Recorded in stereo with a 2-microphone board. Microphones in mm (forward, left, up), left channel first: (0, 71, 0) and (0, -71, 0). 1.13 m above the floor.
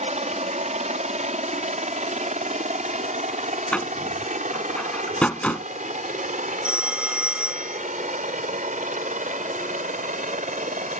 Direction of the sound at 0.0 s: 55° right (ahead or behind).